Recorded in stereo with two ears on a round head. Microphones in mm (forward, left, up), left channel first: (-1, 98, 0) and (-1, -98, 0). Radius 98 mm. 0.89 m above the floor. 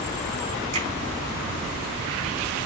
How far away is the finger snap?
About 7 m.